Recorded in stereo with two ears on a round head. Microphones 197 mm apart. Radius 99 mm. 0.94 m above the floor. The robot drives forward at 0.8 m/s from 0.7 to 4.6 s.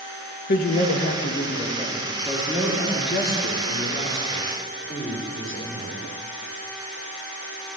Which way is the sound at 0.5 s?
50° left (ahead or behind).